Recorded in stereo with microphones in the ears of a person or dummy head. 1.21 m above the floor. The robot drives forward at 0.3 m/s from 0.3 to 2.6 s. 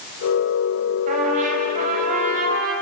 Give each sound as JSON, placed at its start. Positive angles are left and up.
{"t": 1.1, "sound": "a trumpet", "side_deg": -45, "distance_m": 7.0}